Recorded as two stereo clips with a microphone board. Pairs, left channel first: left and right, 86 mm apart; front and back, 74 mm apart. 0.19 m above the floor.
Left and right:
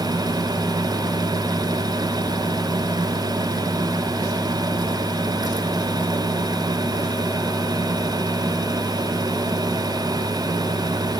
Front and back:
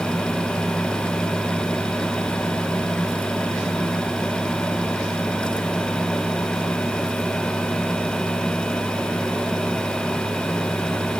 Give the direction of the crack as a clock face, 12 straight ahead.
I don't hear a crack.